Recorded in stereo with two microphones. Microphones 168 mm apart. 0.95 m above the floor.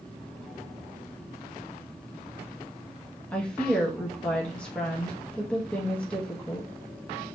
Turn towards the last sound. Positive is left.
turn(degrees=5)  # may be behind; listen again after turning